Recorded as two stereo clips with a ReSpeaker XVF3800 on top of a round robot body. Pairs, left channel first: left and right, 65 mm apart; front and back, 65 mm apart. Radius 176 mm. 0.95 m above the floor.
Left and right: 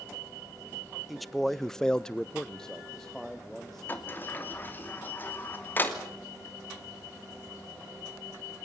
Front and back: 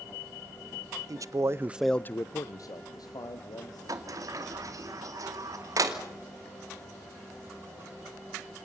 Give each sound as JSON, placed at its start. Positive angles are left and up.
{"t": 1.1, "sound": "a man speaking", "azimuth_deg": 180, "distance_m": 1.4}
{"t": 3.9, "sound": "a sliding door", "azimuth_deg": 150, "distance_m": 3.0}